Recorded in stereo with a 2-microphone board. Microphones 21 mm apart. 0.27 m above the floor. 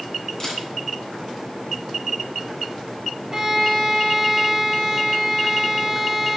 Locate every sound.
0.4 s a camera shutter: 20° left (ahead or behind), 2.5 m
3.3 s a violin: 20° right (ahead or behind), 1.1 m